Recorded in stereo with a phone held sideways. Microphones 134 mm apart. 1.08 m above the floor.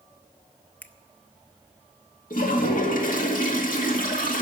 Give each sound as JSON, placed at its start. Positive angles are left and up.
{"t": 0.8, "sound": "a finger snap", "side_deg": 10, "distance_m": 0.8}
{"t": 2.3, "sound": "a toilet flushing", "side_deg": 75, "distance_m": 2.0}